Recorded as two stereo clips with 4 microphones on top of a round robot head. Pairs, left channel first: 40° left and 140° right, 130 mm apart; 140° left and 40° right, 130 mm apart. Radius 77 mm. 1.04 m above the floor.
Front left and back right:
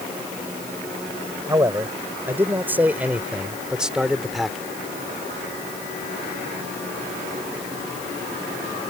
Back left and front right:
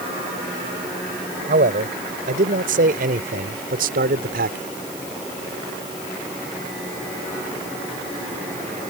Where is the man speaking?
70° right; by 4.6 s 50° right.